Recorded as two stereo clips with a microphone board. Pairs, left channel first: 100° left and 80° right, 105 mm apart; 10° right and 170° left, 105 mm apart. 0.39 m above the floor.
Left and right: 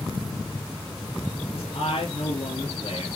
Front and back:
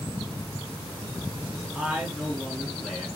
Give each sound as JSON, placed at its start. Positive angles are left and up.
{"t": 1.5, "sound": "a man speaking", "azimuth_deg": 80, "distance_m": 4.5}